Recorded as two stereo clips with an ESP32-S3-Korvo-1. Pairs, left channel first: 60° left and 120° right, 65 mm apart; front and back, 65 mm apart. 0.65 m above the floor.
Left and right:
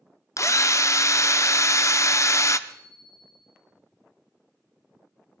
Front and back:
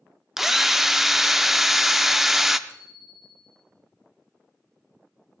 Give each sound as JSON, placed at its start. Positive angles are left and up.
{"t": 0.4, "sound": "a drill", "azimuth_deg": 95, "distance_m": 0.7}
{"t": 2.7, "sound": "a bicycle bell", "azimuth_deg": -135, "distance_m": 4.5}